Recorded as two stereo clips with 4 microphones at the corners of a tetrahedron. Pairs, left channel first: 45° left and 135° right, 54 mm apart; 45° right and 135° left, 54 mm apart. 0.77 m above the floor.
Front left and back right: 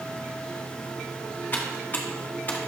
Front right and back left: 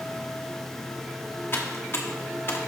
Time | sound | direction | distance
1.5 | typing on a keyboard | 5° right | 1.1 m